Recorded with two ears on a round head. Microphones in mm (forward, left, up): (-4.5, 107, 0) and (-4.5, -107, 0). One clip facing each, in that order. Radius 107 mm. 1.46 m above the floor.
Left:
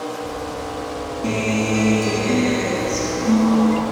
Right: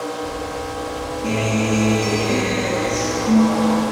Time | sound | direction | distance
1.2 | a guitar | 25° left (ahead or behind) | 2.5 m